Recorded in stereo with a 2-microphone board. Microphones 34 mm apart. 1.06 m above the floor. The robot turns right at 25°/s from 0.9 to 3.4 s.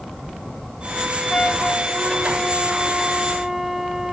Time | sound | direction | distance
1.3 | a flute | 150° left | 1.2 m